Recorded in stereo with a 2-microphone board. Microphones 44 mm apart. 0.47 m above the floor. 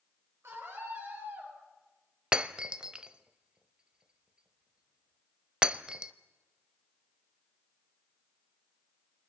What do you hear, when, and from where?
0.4 s a scream: 70° right (ahead or behind), 8.5 m; by 1.5 s 65° right (ahead or behind), 10 m
2.3 s breaking glass: 25° right (ahead or behind), 0.8 m